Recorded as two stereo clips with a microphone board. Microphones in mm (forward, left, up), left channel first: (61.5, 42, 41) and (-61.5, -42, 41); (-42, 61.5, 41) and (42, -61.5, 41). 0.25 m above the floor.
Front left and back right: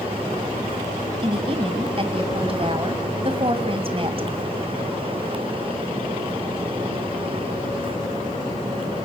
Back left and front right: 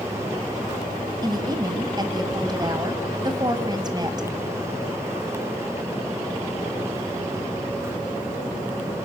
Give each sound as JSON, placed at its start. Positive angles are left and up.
{"t": 1.2, "sound": "a woman speaking", "azimuth_deg": -110, "distance_m": 2.0}